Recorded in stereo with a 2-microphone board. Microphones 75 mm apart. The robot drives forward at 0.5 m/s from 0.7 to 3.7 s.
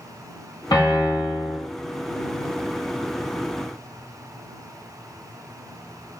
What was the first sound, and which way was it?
A piano, 75° left (ahead or behind).